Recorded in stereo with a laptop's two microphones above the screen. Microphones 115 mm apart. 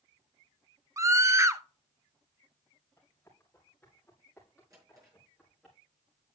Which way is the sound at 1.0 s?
25° right (ahead or behind).